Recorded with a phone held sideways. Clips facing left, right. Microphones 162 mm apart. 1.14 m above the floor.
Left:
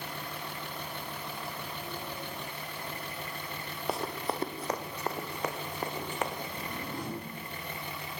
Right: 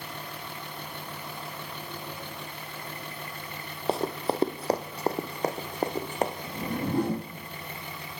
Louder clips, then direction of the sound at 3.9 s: Right 6 dB; 30° right (ahead or behind).